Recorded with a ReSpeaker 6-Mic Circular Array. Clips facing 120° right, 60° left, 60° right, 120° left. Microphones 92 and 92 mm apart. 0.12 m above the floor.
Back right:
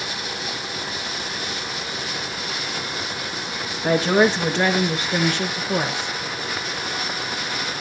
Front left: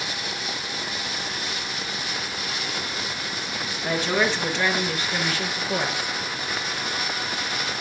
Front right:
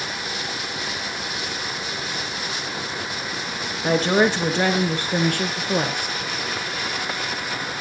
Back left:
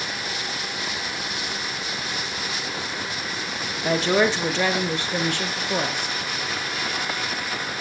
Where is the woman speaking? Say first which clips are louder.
Back right 6 dB, front right 2 dB; 90° right, 2.5 m; by 6.2 s 55° right, 3 m.